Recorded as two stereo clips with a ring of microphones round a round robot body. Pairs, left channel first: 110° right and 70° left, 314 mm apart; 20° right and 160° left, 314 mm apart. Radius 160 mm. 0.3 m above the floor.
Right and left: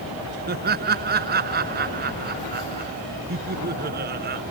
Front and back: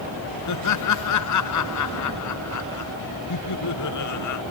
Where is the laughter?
10° left.